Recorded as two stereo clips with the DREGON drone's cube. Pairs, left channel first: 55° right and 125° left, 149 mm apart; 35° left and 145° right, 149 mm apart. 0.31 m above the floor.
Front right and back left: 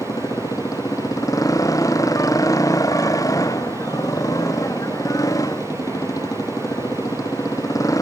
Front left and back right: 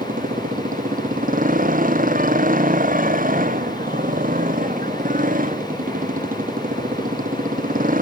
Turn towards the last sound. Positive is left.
turn(degrees=-125)